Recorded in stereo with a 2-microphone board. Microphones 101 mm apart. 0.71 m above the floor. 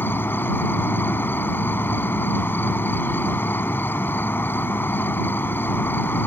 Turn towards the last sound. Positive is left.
turn(degrees=20)  # may be behind; listen again after turning